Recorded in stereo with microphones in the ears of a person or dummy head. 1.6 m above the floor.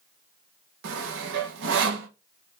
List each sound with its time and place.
0.8 s sawing: 60° right (ahead or behind), 1.2 m